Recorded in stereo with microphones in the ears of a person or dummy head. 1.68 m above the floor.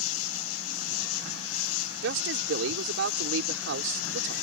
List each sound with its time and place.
0.0 s an insect: 70° left (ahead or behind)
2.0 s a man speaking: 65° right (ahead or behind)